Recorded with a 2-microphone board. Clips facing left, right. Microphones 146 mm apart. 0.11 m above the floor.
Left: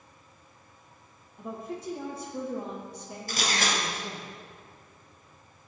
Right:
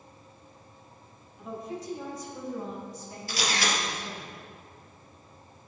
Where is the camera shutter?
50° left (ahead or behind), 3 m.